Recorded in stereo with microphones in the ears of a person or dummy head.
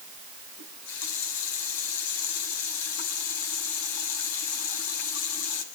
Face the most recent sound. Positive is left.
turn(degrees=85)